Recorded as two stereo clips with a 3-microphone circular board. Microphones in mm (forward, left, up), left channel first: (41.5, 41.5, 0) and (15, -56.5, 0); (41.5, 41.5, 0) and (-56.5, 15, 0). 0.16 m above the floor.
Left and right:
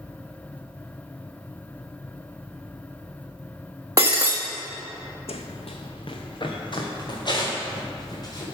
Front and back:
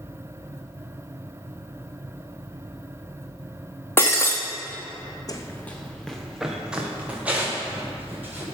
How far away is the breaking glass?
About 1.4 m.